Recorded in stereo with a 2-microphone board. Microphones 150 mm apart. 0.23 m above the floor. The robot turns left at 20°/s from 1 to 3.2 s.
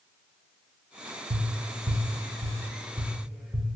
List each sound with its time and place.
1.3 s tapping: 45° right (ahead or behind), 0.6 m; by 3.8 s 5° right (ahead or behind), 0.6 m